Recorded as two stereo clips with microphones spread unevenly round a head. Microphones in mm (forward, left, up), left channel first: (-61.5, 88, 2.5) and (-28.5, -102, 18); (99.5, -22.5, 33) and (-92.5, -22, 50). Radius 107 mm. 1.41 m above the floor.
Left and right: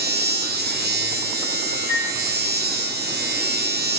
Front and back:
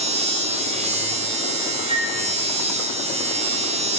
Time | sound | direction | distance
0.0 | a machine running | 120° right | 0.7 m
1.9 | a flute | 120° left | 5 m